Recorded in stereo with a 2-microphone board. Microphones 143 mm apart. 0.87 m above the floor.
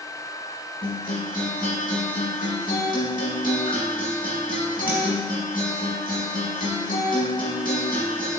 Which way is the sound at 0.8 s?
75° left (ahead or behind).